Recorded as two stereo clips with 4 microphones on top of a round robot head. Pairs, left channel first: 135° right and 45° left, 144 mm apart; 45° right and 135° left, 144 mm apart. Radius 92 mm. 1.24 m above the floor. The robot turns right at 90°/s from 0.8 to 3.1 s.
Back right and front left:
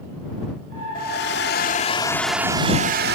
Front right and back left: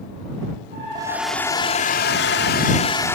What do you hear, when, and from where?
0.9 s a hair dryer: 165° right; by 3.1 s 30° left